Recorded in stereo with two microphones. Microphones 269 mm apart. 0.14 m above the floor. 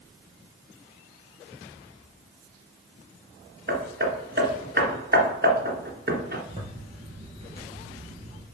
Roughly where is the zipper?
Right.